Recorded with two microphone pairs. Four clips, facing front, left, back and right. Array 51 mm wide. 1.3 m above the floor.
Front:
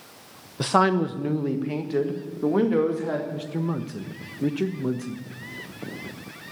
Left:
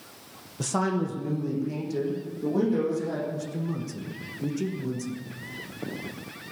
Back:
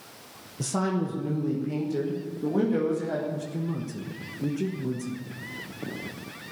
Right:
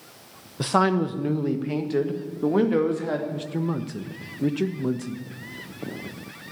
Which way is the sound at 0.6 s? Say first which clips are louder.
Right 6 dB, front 8 dB; 30° right.